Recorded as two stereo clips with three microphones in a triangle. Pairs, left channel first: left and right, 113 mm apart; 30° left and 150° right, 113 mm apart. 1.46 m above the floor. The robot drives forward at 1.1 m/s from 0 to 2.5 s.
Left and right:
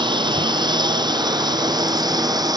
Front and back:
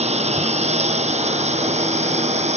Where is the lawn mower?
135° right; by 2.6 s 145° right.